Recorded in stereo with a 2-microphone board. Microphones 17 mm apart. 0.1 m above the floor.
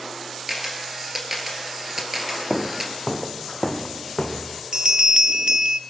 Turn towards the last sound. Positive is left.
turn(degrees=-55)  # may be behind; listen again after turning